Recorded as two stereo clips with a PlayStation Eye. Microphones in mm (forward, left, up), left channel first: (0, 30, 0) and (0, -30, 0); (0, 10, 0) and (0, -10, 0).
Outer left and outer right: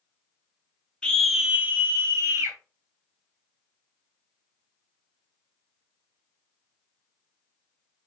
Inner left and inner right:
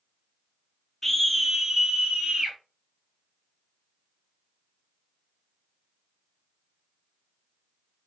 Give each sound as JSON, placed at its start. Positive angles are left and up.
{"t": 1.0, "sound": "a scream", "side_deg": 15, "distance_m": 0.6}